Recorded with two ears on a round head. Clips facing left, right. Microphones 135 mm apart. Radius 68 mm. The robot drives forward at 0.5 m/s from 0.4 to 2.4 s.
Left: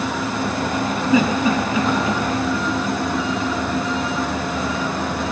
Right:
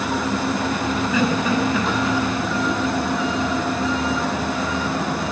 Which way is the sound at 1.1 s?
15° left (ahead or behind).